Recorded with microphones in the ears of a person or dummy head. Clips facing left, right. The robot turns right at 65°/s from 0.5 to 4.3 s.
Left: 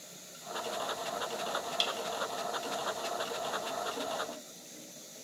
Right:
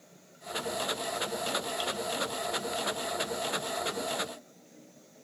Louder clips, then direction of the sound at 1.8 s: Right 3 dB; 30° left (ahead or behind).